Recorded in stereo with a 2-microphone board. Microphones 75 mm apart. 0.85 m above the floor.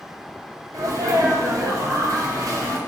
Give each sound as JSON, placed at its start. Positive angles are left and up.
{"t": 0.7, "sound": "a sneeze", "side_deg": -45, "distance_m": 0.7}